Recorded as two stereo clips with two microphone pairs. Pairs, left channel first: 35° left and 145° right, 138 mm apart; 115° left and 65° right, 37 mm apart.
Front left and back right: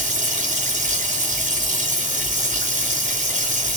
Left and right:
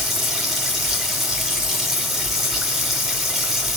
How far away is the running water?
About 2.5 m.